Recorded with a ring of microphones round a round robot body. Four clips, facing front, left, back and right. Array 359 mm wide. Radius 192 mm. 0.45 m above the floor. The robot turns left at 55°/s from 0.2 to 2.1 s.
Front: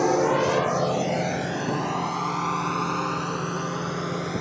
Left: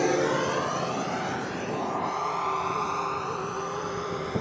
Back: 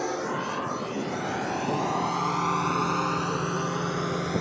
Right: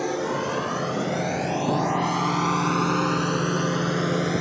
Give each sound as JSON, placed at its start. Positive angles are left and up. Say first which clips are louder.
{"t": 0.0, "sound": "a drone", "louder": "left 2 dB, front 9 dB", "azimuth_deg": 20}